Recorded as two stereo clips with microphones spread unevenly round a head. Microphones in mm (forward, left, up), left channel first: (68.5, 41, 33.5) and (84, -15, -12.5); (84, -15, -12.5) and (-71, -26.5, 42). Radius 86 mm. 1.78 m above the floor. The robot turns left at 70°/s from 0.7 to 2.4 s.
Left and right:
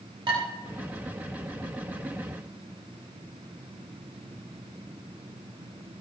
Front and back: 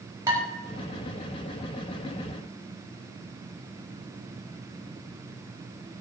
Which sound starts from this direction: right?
Dishes clattering, at 0.3 s.